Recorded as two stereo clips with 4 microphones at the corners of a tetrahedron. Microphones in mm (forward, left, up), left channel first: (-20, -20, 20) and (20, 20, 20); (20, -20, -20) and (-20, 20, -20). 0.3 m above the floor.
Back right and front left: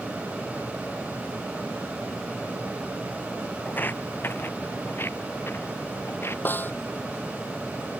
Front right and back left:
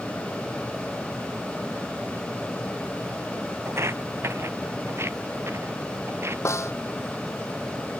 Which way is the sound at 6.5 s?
80° right.